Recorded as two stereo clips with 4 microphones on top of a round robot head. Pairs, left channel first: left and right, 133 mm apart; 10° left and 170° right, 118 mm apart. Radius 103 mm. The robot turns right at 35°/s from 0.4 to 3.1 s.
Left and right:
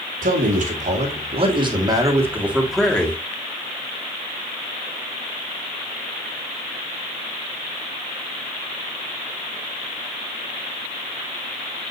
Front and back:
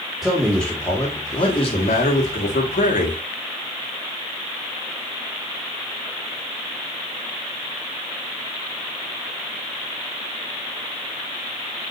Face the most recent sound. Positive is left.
turn(degrees=15)